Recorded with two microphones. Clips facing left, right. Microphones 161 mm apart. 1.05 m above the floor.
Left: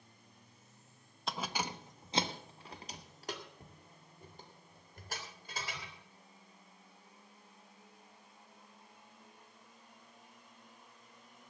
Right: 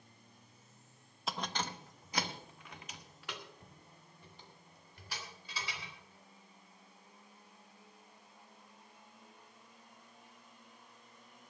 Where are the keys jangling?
5° right (ahead or behind), 0.7 m; by 5.9 s 50° left (ahead or behind), 3.5 m.